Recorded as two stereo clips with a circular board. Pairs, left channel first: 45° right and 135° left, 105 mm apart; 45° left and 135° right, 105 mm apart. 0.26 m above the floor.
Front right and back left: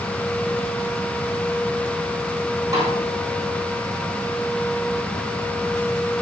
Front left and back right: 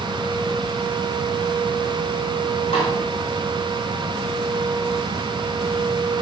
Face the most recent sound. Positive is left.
turn(degrees=70)